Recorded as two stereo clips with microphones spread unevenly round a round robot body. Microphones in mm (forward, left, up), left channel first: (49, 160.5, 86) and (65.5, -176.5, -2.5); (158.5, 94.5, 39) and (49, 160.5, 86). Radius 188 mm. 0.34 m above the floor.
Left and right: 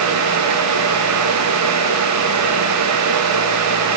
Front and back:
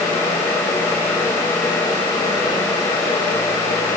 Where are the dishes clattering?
No dishes clattering in this recording.